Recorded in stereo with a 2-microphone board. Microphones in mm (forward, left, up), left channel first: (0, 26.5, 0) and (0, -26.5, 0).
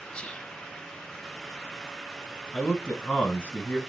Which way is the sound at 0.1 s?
20° left (ahead or behind).